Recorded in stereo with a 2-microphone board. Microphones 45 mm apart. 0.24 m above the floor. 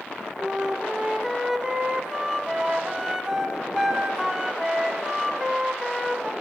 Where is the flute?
15° right (ahead or behind), 0.8 m.